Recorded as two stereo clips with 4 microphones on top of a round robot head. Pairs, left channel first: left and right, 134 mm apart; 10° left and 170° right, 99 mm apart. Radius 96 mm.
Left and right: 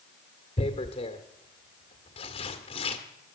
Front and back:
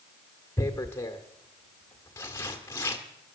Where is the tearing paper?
60° left, 1.5 m.